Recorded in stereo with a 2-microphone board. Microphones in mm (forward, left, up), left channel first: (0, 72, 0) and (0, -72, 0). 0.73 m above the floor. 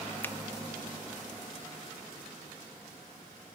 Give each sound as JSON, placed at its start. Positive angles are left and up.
{"t": 0.2, "sound": "a finger snap", "side_deg": 15, "distance_m": 0.5}